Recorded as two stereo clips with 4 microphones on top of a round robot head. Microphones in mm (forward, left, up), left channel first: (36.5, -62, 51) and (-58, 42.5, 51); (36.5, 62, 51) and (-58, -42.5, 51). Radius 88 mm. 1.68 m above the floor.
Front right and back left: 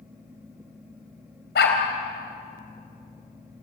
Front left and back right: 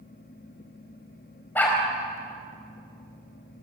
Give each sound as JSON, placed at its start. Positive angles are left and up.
{"t": 1.6, "sound": "a dog barking", "azimuth_deg": -30, "distance_m": 4.0}